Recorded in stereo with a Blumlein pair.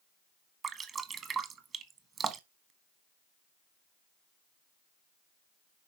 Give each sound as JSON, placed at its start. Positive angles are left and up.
{"t": 0.6, "sound": "dripping", "azimuth_deg": -25, "distance_m": 1.3}